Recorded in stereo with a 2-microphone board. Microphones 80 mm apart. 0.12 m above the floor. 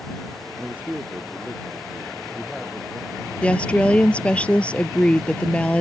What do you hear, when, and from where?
0.6 s a man speaking: 15° right (ahead or behind); by 4.4 s 10° right (ahead or behind)
3.4 s a woman speaking: 15° left (ahead or behind)